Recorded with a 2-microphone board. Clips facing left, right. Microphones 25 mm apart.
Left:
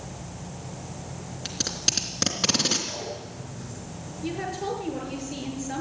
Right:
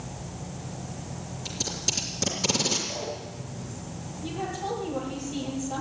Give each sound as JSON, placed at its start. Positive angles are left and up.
{"t": 1.4, "sound": "tape being pulled", "side_deg": 40, "distance_m": 3.0}
{"t": 2.9, "sound": "a zipper", "side_deg": 75, "distance_m": 6.0}
{"t": 4.2, "sound": "a woman speaking", "side_deg": 75, "distance_m": 7.5}